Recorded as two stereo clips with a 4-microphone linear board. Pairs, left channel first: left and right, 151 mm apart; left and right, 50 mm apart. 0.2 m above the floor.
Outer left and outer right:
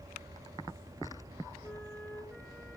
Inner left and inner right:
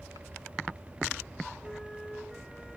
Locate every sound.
1.6 s a flute: 5° left (ahead or behind), 2.5 m